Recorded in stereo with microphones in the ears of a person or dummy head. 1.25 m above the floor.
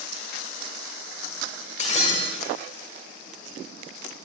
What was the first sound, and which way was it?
Breaking glass, 45° left (ahead or behind).